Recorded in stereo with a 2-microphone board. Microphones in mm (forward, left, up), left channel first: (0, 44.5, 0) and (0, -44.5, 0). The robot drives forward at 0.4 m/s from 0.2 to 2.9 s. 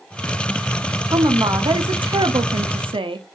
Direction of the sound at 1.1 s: 45° right (ahead or behind).